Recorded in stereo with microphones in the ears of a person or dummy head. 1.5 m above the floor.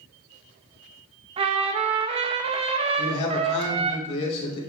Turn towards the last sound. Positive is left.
turn(degrees=35)  # may be behind; listen again after turning